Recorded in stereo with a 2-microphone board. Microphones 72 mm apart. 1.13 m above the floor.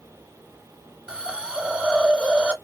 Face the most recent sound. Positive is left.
turn(degrees=-15)  # may be behind; listen again after turning